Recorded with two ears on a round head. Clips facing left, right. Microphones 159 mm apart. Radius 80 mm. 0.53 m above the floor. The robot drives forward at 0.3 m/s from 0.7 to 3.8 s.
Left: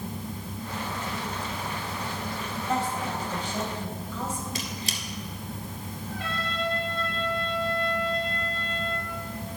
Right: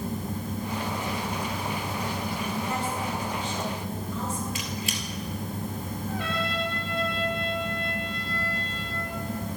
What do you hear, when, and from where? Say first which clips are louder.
2.7 s a woman speaking: left 1 dB; 60° left (ahead or behind), 3 m; by 4.5 s 65° left (ahead or behind), 3 m
4.5 s a squeak: right 2 dB; 35° left (ahead or behind), 1.6 m
6.1 s a trumpet: right 3 dB; 55° right (ahead or behind), 2.5 m